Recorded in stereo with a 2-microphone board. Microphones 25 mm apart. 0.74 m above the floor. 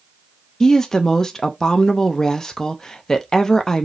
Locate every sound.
0.6 s a woman speaking: 25° left (ahead or behind), 0.6 m